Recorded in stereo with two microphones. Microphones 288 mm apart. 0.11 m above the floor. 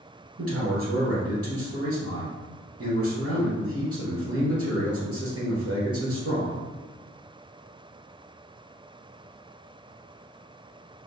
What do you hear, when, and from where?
0.4 s a man speaking: 55° right (ahead or behind), 1.7 m